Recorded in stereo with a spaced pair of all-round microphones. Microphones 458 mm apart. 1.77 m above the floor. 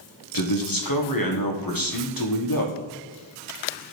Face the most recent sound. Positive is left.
turn(degrees=45)  # may be behind; listen again after turning